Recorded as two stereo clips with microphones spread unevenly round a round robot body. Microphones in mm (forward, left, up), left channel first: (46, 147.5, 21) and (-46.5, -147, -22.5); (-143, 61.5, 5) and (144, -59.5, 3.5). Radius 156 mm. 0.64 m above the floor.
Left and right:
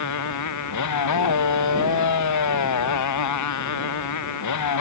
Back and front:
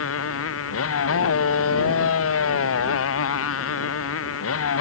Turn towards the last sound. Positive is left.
turn(degrees=110)